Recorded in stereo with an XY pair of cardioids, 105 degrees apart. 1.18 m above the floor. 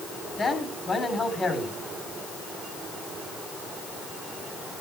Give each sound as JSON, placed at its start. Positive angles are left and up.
{"t": 0.4, "sound": "a man speaking", "azimuth_deg": 35, "distance_m": 4.0}